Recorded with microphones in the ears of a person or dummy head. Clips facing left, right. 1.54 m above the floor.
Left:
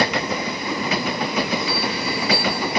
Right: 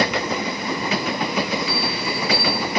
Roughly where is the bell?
Right.